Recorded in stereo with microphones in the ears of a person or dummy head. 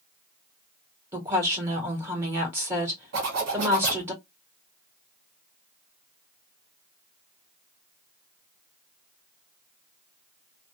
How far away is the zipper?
About 1.4 m.